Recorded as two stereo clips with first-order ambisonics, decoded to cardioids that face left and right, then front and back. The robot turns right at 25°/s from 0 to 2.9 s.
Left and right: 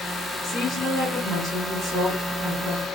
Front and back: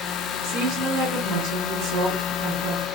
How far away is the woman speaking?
About 1.8 m.